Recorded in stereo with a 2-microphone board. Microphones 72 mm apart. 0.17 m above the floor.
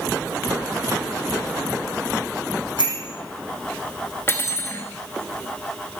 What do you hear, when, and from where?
2.8 s a bicycle bell: 80° left, 5 m
4.3 s cutlery clinking: 30° left (ahead or behind), 1.5 m